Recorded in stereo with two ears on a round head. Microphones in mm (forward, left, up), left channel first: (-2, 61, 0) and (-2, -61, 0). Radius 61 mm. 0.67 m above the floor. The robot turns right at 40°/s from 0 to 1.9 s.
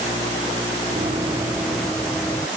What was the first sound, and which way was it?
Running footsteps, 35° right (ahead or behind).